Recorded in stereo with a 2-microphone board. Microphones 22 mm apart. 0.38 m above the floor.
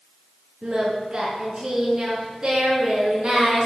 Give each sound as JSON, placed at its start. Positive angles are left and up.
{"t": 0.6, "sound": "singing", "side_deg": -35, "distance_m": 4.0}